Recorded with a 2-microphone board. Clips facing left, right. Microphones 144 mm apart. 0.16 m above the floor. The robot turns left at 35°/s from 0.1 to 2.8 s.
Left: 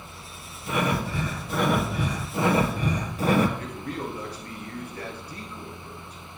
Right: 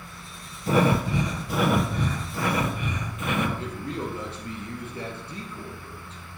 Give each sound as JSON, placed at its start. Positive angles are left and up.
{"t": 0.7, "sound": "breathing", "azimuth_deg": -140, "distance_m": 0.8}
{"t": 3.6, "sound": "a man speaking", "side_deg": -25, "distance_m": 2.5}